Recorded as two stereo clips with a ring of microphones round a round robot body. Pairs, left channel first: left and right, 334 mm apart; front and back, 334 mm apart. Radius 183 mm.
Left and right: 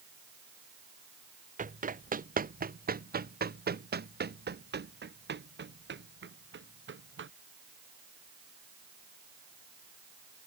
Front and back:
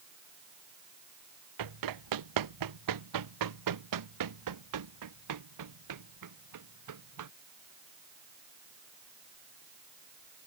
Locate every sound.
1.6 s running footsteps: 155° right; by 7.3 s 145° right